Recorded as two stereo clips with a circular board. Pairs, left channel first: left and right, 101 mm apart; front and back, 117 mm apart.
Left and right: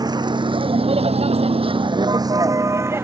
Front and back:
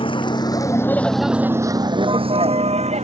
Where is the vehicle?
40° right; by 3.1 s 160° right.